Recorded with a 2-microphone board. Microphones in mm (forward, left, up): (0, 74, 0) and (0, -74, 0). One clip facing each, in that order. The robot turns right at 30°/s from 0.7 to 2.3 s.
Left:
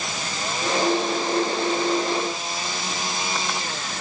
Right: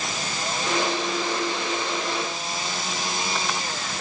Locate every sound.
Only background noise.